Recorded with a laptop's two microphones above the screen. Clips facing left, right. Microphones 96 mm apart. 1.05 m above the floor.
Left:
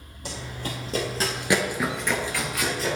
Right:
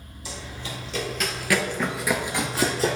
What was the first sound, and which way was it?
Running footsteps, 55° left (ahead or behind).